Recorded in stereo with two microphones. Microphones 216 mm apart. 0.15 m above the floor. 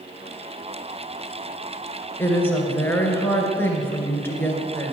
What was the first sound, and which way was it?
A woman speaking, 10° left (ahead or behind).